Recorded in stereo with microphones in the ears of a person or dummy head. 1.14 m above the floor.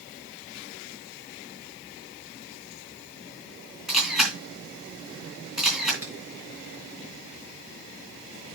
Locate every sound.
3.9 s a camera shutter: centre (ahead or behind), 3.5 m
6.0 s a finger snap: 10° right (ahead or behind), 4 m